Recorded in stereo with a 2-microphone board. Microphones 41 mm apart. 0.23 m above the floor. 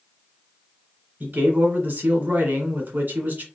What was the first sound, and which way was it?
A man speaking, 55° right (ahead or behind).